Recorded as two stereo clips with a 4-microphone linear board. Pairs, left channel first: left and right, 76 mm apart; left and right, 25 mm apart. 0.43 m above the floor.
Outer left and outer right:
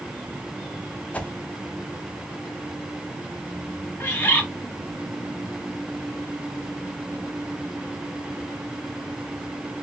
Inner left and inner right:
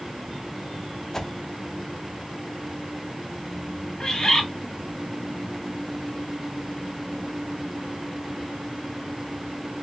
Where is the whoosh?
15° left (ahead or behind), 0.5 m.